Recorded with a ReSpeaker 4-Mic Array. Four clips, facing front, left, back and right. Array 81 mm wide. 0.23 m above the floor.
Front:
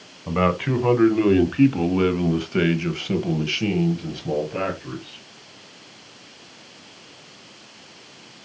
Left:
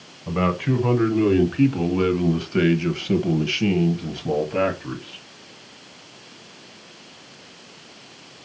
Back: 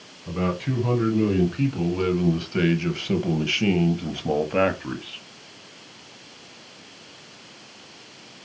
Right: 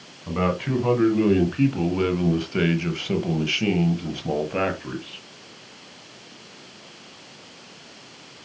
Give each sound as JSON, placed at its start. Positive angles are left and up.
{"t": 0.3, "sound": "a man speaking", "azimuth_deg": 5, "distance_m": 1.9}